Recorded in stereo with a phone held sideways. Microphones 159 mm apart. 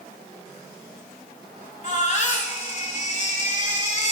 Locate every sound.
1.8 s a baby crying: 50° left (ahead or behind), 2.5 m